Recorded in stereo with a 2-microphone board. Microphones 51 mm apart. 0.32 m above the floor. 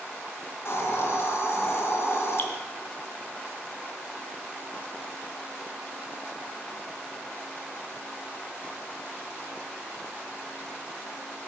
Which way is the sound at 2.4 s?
45° left (ahead or behind).